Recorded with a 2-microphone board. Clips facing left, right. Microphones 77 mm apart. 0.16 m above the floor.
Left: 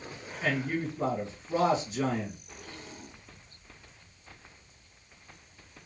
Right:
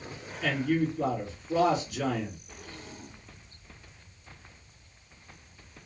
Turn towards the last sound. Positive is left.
turn(degrees=30)  # may be behind; listen again after turning